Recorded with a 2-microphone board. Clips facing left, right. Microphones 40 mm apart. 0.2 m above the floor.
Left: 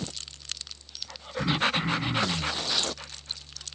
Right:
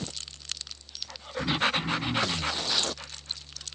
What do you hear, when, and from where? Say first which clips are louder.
1.4 s throat clearing: left 1 dB; 40° left (ahead or behind), 2 m